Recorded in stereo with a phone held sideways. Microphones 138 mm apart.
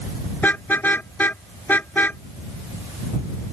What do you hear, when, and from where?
0.4 s a car horn: 10° left (ahead or behind)